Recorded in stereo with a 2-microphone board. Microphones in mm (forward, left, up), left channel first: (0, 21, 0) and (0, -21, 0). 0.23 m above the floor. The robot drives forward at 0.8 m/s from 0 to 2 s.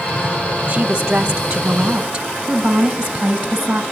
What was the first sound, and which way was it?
A woman speaking, 30° right (ahead or behind).